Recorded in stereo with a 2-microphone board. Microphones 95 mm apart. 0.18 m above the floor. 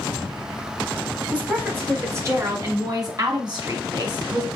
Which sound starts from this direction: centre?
A woman speaking, at 1.3 s.